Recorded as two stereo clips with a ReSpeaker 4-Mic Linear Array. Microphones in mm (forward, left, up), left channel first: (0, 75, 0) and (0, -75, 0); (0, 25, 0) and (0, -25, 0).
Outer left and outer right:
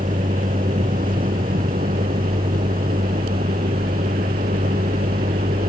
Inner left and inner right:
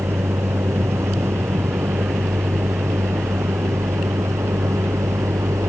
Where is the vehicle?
70° right (ahead or behind); by 5.7 s 85° right.